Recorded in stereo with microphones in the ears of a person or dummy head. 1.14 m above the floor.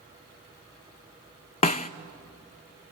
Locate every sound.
1.6 s a snare drum: 30° left (ahead or behind), 0.5 m